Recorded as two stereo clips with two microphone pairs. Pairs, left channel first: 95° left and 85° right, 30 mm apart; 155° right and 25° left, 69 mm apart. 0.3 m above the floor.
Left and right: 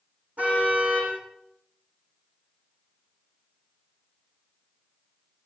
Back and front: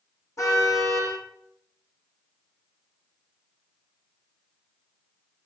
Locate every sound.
0.4 s a car horn: 120° right, 9.5 m